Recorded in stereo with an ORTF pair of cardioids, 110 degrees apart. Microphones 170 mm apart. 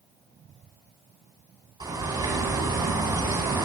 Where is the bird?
25° right, 5 m.